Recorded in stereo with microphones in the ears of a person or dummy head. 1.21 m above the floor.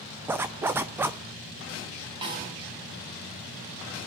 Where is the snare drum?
25° right (ahead or behind), 6 m.